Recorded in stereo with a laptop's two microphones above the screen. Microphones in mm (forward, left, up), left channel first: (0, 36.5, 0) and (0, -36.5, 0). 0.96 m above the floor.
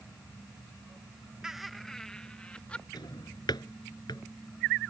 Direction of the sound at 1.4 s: 10° right (ahead or behind).